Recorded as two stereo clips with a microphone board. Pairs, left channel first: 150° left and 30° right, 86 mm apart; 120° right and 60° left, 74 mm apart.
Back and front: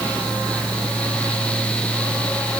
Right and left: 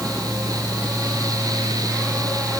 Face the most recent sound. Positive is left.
No sound to turn to.